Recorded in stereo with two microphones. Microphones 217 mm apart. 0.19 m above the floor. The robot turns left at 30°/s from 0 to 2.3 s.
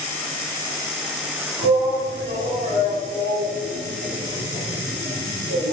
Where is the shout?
20° right (ahead or behind), 1.9 m; by 5.7 s 35° right (ahead or behind), 1.9 m.